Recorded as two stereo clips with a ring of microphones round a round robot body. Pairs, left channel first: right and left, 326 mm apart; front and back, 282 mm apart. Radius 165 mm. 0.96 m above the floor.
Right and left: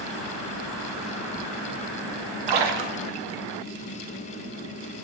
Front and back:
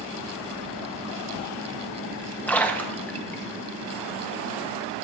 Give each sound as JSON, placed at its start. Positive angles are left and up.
{"t": 2.5, "sound": "a splash", "azimuth_deg": 85, "distance_m": 0.8}